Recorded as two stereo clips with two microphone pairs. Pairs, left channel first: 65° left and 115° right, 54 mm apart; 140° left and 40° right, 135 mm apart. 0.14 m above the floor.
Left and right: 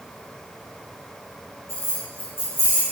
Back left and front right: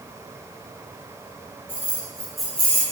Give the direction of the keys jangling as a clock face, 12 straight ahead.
11 o'clock.